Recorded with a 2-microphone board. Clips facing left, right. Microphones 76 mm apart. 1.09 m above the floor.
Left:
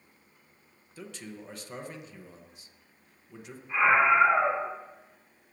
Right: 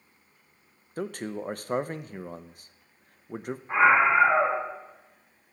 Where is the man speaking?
50° right (ahead or behind), 0.6 m.